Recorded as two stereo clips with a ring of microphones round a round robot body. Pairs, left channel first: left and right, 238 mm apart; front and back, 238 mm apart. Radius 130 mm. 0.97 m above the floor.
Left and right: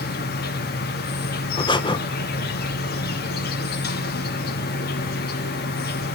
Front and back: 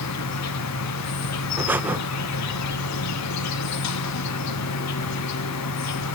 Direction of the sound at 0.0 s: 35° left.